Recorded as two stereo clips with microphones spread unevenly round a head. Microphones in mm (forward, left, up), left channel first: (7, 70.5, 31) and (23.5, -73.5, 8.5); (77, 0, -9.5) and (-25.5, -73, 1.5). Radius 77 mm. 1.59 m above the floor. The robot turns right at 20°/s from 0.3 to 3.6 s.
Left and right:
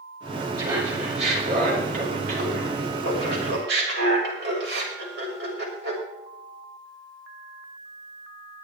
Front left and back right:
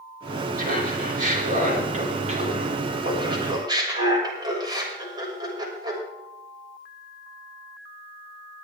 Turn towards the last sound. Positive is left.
turn(degrees=-90)